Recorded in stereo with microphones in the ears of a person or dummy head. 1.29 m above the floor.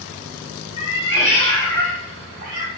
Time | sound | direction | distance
0.8 | a cat meowing | 30° left (ahead or behind) | 1.6 m